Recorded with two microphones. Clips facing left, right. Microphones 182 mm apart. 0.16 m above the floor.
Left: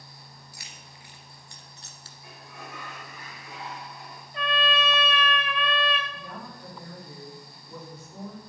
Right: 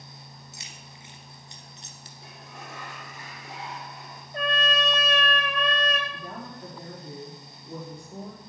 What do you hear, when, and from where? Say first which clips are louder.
0.5 s keys jangling: right 2 dB; 25° right (ahead or behind), 2 m; by 2.1 s 20° right (ahead or behind), 1.4 m
2.2 s a sliding door: even; 75° right (ahead or behind), 6 m
4.3 s a trumpet: even; 45° right (ahead or behind), 1.5 m
6.1 s a woman speaking: right 2 dB; 50° right (ahead or behind), 5.5 m